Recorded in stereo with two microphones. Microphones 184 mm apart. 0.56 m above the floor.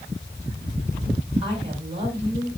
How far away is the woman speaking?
About 6.5 m.